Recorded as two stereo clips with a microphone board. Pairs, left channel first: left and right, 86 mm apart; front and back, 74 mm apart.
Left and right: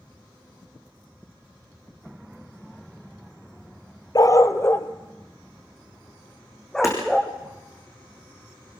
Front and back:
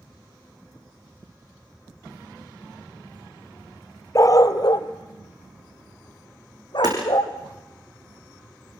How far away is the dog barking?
About 1.0 m.